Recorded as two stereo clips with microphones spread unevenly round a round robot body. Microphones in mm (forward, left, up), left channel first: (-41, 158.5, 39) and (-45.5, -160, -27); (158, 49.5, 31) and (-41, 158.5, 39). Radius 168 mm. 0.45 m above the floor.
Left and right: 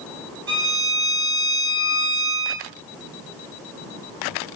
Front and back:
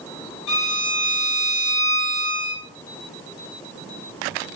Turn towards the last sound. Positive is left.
turn(degrees=-30)